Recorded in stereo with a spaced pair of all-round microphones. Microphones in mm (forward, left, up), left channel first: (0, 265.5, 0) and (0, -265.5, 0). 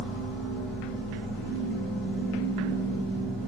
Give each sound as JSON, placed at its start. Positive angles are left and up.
{"t": 0.0, "sound": "a machine running", "side_deg": 5, "distance_m": 1.6}